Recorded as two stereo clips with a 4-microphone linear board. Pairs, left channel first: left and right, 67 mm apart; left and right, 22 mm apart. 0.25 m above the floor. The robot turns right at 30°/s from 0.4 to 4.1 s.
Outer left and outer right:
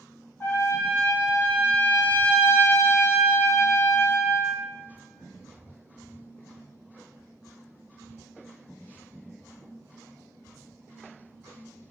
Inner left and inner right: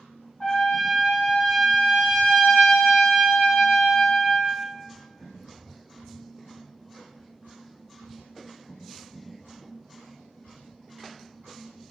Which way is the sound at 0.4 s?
35° left.